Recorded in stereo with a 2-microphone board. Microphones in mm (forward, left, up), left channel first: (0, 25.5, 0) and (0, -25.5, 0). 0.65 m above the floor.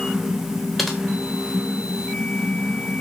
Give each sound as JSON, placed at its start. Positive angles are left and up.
{"t": 0.8, "sound": "typing on a keyboard", "side_deg": 0, "distance_m": 2.5}